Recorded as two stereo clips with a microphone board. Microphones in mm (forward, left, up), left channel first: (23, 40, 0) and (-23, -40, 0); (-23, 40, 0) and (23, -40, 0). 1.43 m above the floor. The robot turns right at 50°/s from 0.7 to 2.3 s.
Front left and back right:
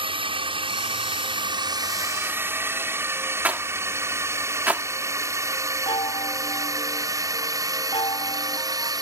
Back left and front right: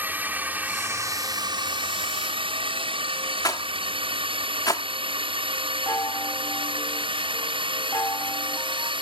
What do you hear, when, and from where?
0.0 s a drone: 130° right; by 9.0 s 75° right
3.4 s a rattle: 165° left
5.9 s a chime: 65° left